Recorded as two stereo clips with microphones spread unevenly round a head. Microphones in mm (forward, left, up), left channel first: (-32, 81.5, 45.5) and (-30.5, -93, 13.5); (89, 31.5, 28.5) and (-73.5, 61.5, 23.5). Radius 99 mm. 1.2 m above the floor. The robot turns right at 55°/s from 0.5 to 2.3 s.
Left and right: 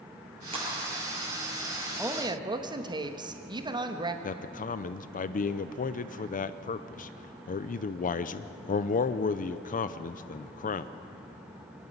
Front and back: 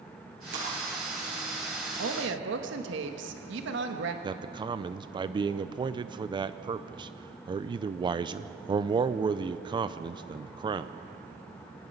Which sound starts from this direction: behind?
A woman speaking, at 2.0 s.